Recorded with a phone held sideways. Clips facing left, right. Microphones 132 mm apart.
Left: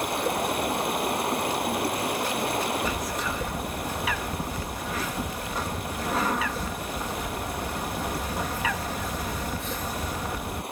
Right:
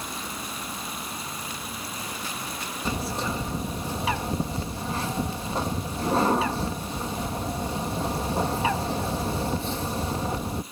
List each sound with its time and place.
0.0 s running water: 65° left (ahead or behind)
2.9 s a bird: 30° right (ahead or behind)